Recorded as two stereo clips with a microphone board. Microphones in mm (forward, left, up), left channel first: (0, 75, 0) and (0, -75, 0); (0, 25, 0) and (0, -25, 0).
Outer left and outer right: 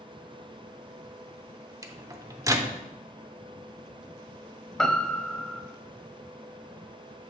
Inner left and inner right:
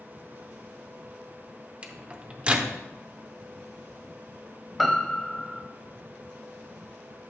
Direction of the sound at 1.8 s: 20° right (ahead or behind).